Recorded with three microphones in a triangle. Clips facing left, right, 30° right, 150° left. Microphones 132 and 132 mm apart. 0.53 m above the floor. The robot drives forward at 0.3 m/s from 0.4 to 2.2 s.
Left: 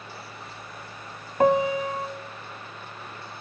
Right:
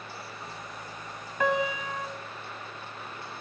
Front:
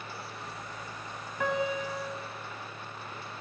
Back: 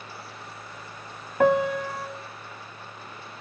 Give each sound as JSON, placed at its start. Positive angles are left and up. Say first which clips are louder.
{"t": 1.4, "sound": "a piano", "louder": "left 7 dB, back 9 dB", "azimuth_deg": 130, "distance_m": 0.9}